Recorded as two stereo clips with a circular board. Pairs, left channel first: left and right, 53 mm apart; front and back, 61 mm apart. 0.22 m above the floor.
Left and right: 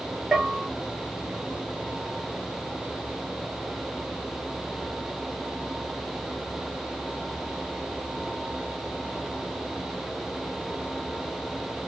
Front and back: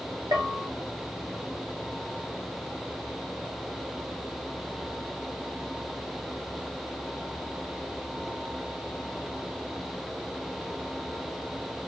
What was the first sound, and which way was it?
A bell, 175° right.